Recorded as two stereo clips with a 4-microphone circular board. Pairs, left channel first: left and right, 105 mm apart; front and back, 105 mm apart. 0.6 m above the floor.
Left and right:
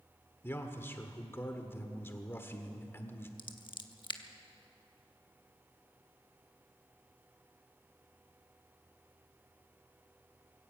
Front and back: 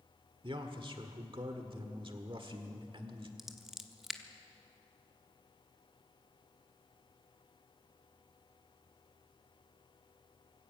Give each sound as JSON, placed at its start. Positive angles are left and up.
{"t": 0.4, "sound": "a man speaking", "azimuth_deg": 155, "distance_m": 1.4}
{"t": 3.4, "sound": "scissors", "azimuth_deg": 95, "distance_m": 1.0}